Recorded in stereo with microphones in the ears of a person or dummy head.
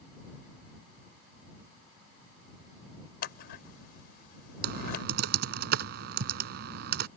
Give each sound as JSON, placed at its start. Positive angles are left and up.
{"t": 3.2, "sound": "scissors", "side_deg": 60}
{"t": 4.6, "sound": "typing on a keyboard", "side_deg": -65}